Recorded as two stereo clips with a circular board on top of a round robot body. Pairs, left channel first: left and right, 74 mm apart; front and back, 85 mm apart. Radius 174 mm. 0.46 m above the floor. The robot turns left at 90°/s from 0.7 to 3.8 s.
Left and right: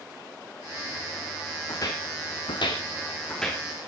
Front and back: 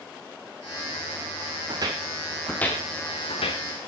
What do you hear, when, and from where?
1.7 s footsteps: 145° left, 2.0 m; by 3.9 s 20° right, 2.5 m